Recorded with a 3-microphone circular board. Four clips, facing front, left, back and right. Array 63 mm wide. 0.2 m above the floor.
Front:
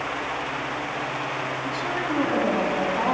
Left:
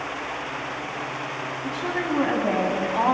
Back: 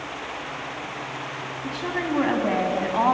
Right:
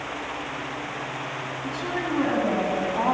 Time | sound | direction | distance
1.6 | a woman speaking | 155° left | 1.9 m